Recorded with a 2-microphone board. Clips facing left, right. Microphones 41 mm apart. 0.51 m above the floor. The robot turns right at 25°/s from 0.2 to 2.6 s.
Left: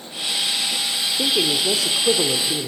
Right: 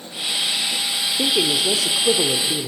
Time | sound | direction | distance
1.2 | a man speaking | 10° right | 1.1 m